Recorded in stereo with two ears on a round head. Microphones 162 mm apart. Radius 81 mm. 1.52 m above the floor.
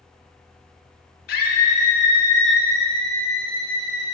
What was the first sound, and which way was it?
A scream, 55° left (ahead or behind).